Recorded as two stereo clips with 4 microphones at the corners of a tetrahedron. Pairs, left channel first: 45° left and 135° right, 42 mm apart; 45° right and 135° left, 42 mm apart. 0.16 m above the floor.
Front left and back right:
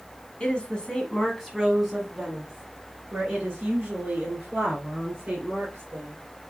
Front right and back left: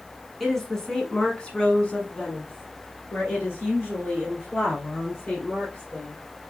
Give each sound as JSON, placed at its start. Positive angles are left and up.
{"t": 0.4, "sound": "a woman speaking", "azimuth_deg": 40, "distance_m": 1.3}